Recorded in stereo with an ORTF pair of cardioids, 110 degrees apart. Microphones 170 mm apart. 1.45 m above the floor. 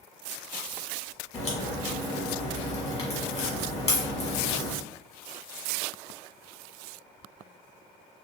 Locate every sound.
1.3 s a crack: 40° left, 1.6 m